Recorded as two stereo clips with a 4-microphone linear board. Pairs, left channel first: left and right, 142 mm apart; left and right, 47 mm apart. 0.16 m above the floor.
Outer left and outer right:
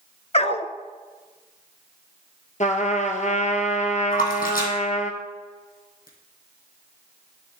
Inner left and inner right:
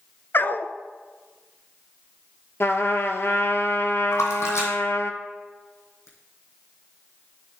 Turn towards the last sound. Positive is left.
turn(degrees=65)  # may be behind; listen again after turning